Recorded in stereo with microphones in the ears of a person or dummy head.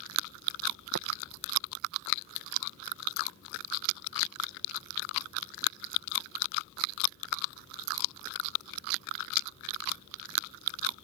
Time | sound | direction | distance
0.9 | tapping | 45° right (ahead or behind) | ?